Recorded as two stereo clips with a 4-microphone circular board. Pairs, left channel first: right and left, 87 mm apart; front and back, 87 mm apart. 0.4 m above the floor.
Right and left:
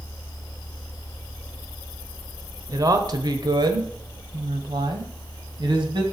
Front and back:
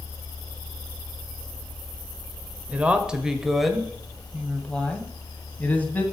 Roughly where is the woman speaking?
Behind left.